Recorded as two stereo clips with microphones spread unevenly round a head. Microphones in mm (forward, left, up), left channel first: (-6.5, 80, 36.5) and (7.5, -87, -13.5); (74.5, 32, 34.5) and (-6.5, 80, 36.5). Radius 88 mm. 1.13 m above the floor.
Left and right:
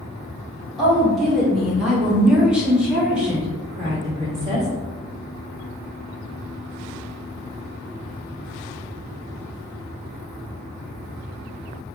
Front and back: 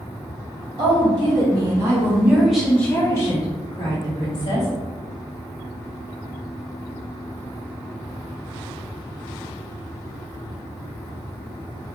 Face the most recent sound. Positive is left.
turn(degrees=-5)